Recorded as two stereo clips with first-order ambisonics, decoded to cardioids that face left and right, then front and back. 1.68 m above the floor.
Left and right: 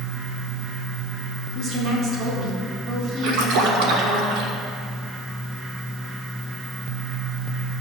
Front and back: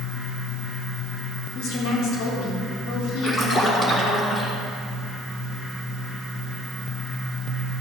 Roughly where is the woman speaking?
Ahead right.